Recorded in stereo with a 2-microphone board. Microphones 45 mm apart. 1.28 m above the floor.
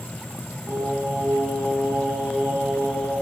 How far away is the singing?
About 8.5 m.